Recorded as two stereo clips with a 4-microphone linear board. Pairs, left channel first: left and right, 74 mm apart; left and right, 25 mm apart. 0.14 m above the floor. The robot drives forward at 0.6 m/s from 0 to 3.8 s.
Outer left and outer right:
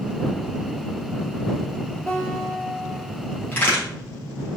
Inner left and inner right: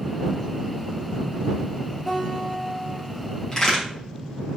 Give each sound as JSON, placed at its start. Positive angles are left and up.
{"t": 2.1, "sound": "a guitar", "side_deg": 15, "distance_m": 1.7}
{"t": 3.5, "sound": "a crack", "side_deg": 25, "distance_m": 2.5}